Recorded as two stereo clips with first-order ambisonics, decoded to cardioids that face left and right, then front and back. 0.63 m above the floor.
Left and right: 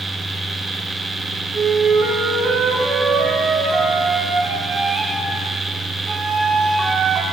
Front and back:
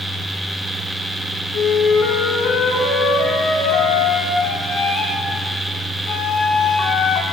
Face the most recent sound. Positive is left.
turn(degrees=-25)